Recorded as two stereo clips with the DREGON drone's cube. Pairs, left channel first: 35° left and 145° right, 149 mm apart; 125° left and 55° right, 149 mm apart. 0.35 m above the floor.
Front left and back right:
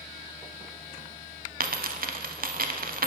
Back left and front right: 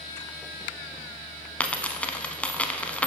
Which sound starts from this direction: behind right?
A dropped coin, at 1.6 s.